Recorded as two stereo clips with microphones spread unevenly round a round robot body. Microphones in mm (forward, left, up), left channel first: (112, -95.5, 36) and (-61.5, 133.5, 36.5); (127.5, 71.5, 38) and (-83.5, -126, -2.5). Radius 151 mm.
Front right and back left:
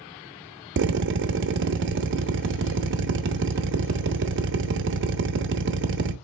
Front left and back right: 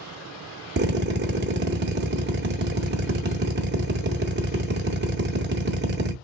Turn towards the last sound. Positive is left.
turn(degrees=175)